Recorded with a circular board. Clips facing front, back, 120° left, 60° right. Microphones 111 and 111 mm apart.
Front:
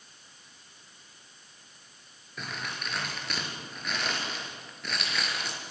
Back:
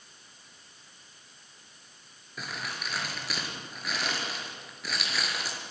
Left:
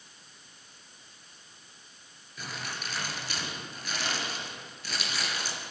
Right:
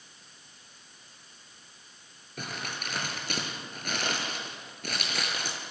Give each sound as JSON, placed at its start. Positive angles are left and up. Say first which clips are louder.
{"t": 2.4, "sound": "crumpling", "louder": "even, right 1 dB", "azimuth_deg": -95, "distance_m": 5.0}